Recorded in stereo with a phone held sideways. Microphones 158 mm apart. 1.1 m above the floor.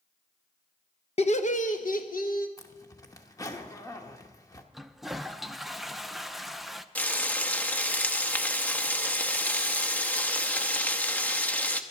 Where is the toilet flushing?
Centre (ahead or behind), 0.5 m.